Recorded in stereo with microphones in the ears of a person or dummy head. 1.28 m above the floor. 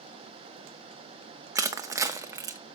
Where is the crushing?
10° right (ahead or behind), 0.6 m.